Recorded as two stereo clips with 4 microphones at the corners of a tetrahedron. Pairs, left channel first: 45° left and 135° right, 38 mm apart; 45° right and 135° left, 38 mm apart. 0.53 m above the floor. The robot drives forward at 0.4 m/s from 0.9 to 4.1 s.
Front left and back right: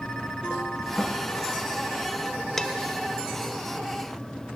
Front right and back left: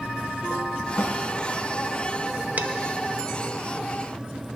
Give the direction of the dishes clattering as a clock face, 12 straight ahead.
8 o'clock.